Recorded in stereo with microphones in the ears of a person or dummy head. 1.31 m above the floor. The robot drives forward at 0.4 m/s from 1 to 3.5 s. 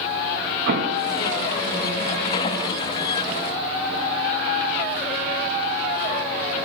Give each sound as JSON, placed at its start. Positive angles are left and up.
{"t": 0.7, "sound": "an explosion", "side_deg": -50, "distance_m": 0.9}